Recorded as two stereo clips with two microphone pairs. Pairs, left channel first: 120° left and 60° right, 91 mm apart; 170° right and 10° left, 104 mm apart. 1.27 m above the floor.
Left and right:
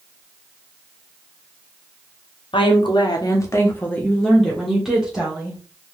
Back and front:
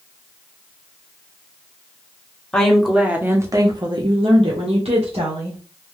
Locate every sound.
2.5 s a woman speaking: 105° left, 1.0 m; by 5.6 s 15° left, 1.9 m